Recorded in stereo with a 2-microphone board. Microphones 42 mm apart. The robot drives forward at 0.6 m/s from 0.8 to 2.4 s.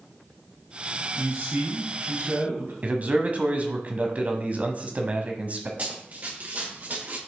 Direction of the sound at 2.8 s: 40° right (ahead or behind).